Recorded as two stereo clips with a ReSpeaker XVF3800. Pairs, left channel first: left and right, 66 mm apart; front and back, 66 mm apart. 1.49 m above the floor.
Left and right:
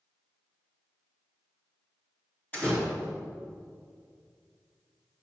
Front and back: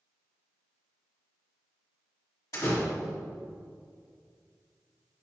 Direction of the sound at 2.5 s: 25° left.